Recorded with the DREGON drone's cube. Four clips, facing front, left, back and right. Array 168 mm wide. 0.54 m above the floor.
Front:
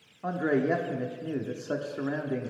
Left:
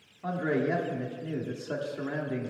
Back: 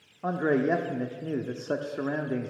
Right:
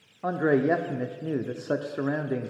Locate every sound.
0.2 s a man speaking: 110° right, 0.7 m